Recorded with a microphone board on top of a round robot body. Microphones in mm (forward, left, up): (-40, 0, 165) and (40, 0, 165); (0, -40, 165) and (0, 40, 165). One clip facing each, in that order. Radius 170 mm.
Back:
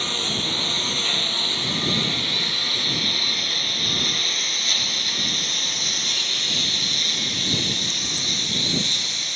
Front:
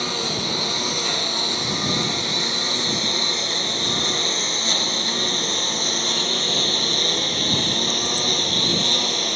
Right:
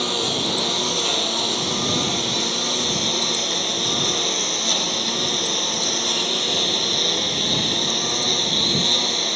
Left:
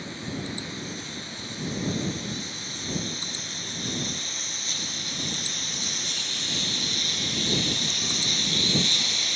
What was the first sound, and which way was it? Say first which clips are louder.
A lawn mower: front 3 dB, right 10 dB; 80° right.